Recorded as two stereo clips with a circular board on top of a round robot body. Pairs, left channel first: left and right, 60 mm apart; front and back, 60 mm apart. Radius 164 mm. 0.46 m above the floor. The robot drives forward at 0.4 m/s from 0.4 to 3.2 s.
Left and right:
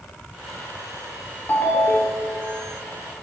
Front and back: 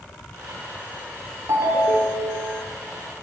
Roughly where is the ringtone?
Behind left.